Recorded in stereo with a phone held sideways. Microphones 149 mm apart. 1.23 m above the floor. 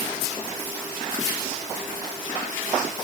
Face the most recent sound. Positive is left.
No sound to turn to.